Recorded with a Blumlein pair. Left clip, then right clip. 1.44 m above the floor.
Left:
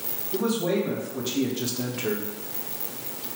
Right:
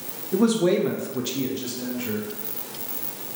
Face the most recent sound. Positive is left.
turn(degrees=45)